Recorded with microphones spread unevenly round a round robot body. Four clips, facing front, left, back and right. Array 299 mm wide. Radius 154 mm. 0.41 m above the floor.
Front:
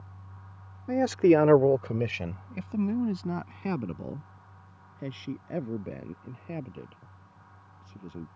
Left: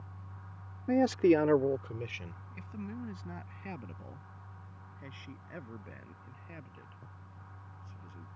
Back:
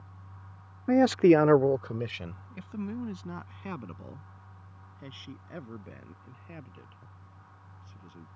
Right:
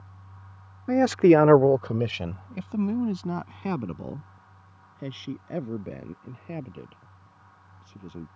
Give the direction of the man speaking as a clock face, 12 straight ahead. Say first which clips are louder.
Right 7 dB, back 1 dB; 5 o'clock.